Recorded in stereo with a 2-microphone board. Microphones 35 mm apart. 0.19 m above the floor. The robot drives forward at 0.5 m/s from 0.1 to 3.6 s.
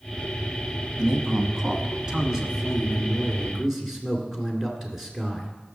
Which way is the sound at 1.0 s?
20° right (ahead or behind).